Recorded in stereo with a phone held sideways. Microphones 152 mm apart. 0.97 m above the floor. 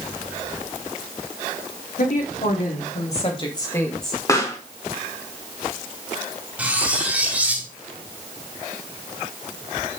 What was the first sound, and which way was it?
A woman speaking, 70° left (ahead or behind).